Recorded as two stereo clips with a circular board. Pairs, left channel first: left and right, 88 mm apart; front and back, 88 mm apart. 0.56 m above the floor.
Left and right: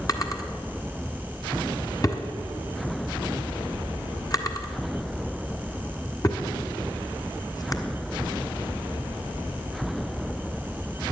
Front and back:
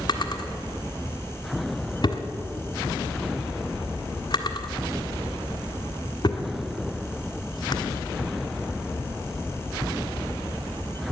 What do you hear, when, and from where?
0.1 s a drawer: 40° left, 1.4 m